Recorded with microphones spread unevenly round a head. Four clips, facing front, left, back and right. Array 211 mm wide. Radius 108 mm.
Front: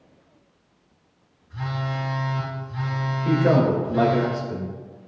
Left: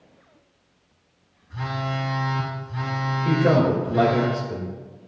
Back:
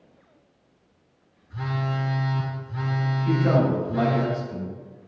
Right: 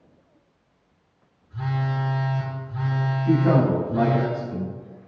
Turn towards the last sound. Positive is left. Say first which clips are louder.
# even, front 3 dB
turn(degrees=60)